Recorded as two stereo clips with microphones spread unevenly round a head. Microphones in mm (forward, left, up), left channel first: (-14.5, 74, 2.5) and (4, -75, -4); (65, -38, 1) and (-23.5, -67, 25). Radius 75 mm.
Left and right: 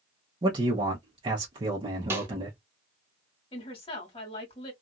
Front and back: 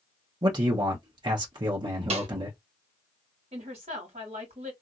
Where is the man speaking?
125° right, 0.7 m.